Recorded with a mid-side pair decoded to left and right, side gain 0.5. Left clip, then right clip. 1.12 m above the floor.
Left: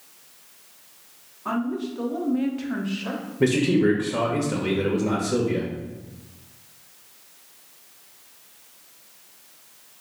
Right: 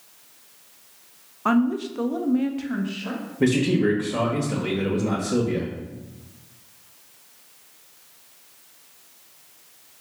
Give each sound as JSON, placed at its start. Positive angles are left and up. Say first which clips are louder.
{"t": 1.4, "sound": "a woman speaking", "louder": "right 5 dB", "azimuth_deg": -70, "distance_m": 0.6}
{"t": 3.4, "sound": "a man speaking", "louder": "left 1 dB", "azimuth_deg": 0, "distance_m": 0.9}